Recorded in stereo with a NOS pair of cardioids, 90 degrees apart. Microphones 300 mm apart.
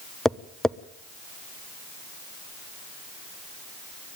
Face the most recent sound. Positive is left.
turn(degrees=0)